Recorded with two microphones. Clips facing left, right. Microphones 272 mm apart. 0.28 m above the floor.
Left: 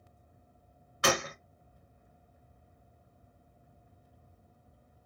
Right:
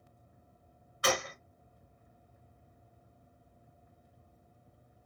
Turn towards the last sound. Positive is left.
turn(degrees=75)  # may be behind; listen again after turning